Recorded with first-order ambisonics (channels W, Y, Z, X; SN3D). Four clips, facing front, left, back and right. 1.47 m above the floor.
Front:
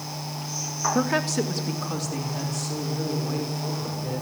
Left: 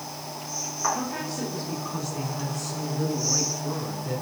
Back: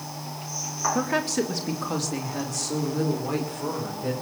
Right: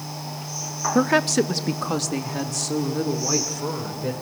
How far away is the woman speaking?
About 1.2 m.